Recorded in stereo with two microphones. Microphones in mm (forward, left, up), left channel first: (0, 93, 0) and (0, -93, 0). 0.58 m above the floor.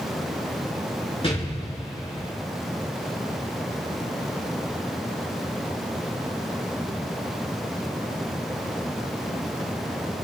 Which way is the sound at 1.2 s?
30° left (ahead or behind).